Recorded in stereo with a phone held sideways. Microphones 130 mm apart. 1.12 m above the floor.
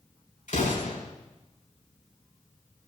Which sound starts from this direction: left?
An explosion, at 0.5 s.